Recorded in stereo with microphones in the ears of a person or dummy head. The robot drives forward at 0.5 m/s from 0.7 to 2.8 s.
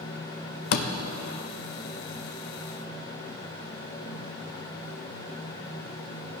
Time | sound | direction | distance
0.7 | a door slam | 65° left (ahead or behind) | 1.3 m